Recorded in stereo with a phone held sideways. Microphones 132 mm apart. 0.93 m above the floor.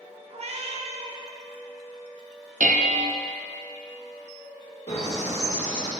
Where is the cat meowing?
50° right (ahead or behind), 0.7 m.